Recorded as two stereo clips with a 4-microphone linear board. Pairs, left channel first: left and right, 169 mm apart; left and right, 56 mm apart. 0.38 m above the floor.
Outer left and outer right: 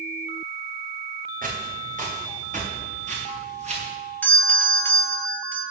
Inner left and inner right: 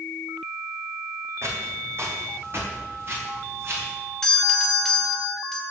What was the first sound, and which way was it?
Footsteps, 55° right (ahead or behind).